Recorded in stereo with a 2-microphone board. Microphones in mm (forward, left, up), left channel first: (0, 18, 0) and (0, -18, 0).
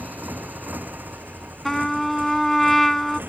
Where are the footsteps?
No footsteps in this recording.